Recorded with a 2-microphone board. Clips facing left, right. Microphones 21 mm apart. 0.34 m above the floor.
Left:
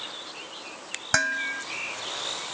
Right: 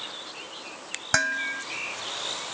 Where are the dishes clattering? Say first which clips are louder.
Even; centre (ahead or behind).